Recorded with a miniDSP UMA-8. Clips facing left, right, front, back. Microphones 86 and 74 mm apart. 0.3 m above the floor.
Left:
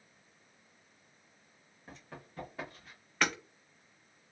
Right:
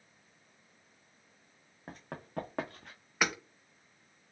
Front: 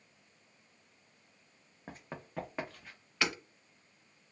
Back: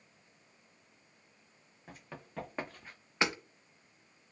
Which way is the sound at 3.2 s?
160° right.